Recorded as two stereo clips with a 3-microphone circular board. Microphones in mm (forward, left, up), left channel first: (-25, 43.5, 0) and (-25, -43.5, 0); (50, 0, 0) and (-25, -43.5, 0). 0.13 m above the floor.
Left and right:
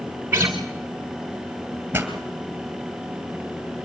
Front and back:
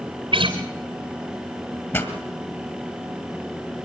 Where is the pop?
25° right, 2 m.